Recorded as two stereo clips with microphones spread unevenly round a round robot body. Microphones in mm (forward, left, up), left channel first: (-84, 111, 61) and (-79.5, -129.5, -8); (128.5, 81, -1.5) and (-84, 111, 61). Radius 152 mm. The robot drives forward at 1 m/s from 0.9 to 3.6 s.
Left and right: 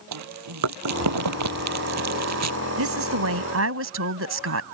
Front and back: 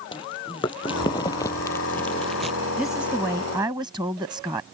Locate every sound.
0.1 s chewing: 85° right; by 2.6 s 100° right
2.8 s a woman speaking: 95° right; by 4.6 s 110° right